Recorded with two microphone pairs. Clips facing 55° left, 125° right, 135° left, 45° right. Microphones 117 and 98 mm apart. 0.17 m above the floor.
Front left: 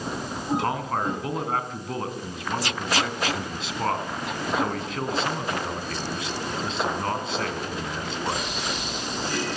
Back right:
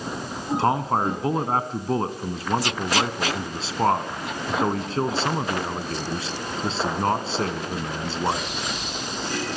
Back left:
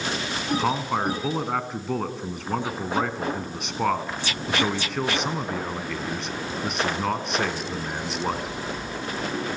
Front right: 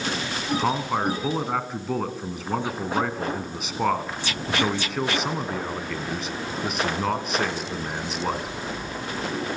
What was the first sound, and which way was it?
A man speaking, 130° right.